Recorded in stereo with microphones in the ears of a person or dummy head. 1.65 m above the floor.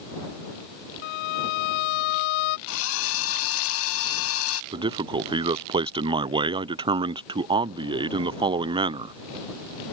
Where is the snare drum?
No snare drum in this recording.